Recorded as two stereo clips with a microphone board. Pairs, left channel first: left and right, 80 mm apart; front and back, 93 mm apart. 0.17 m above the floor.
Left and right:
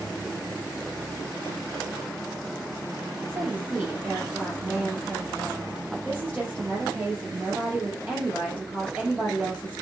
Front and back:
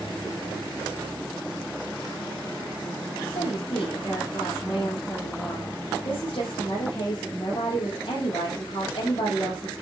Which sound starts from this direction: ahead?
A woman speaking, at 3.3 s.